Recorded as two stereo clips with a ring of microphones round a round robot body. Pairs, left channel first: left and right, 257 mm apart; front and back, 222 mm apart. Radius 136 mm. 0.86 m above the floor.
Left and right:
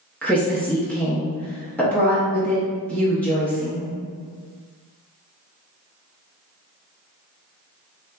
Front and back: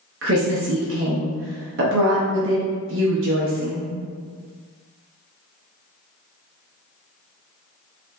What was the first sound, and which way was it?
A woman speaking, 175° left.